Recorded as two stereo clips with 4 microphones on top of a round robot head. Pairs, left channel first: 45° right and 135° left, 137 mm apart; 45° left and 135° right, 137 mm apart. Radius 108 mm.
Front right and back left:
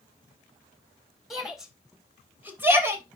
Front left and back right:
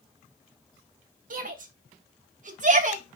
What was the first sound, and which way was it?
A shout, 140° right.